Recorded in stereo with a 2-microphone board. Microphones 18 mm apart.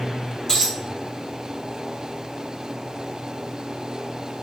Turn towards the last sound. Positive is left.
turn(degrees=35)  # may be behind; listen again after turning